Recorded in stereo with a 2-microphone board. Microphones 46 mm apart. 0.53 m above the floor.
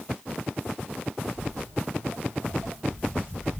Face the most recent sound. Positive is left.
turn(degrees=-65)  # may be behind; listen again after turning